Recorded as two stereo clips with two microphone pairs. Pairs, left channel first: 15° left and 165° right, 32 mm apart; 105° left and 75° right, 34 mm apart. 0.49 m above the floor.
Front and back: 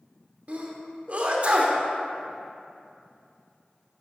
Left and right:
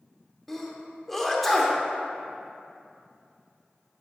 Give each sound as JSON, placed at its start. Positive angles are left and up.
{"t": 0.5, "sound": "a sneeze", "azimuth_deg": -175, "distance_m": 0.9}